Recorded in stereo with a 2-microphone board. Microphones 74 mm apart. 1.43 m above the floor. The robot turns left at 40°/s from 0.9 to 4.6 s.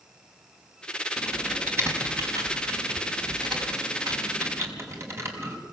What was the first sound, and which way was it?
Typing on a keyboard, 5° right (ahead or behind).